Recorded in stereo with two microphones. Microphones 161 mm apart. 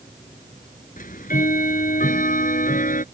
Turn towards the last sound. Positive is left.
turn(degrees=60)  # may be behind; listen again after turning